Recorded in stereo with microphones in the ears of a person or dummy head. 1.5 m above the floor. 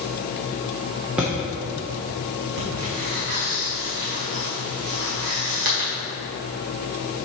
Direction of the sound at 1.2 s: 10° right (ahead or behind).